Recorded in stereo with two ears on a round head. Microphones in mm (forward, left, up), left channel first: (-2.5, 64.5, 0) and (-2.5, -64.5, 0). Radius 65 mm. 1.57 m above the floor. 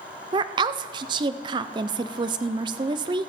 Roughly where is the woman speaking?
Right.